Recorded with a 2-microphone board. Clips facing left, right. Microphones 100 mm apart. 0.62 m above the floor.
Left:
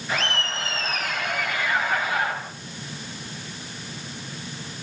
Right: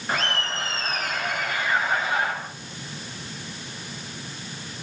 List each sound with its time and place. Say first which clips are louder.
0.1 s laughter: right 1 dB; 45° right (ahead or behind), 9.5 m; by 2.3 s 30° right (ahead or behind), 10.5 m